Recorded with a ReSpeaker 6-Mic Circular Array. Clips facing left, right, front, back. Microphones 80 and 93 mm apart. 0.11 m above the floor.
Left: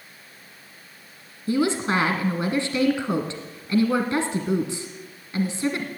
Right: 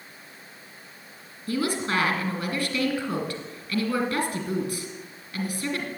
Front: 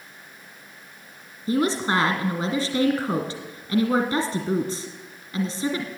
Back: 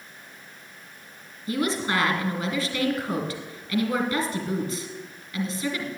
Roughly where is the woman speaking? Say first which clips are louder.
Left 4 dB, front 4 dB; ahead left.